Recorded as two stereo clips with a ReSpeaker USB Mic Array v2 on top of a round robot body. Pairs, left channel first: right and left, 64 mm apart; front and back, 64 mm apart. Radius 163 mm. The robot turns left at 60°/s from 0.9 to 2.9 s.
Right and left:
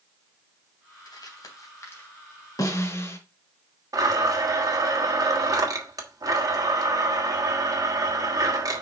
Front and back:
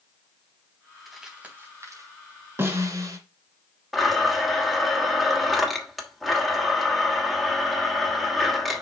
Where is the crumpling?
90° right, 3.5 m; by 2.1 s 150° right, 3.5 m.